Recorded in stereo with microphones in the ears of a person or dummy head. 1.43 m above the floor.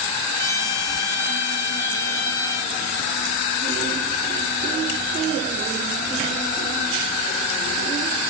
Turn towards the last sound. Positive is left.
turn(degrees=20)  # may be behind; listen again after turning